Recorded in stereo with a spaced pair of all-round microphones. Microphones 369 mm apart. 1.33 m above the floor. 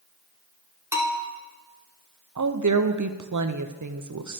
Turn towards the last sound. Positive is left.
turn(degrees=-55)  # may be behind; listen again after turning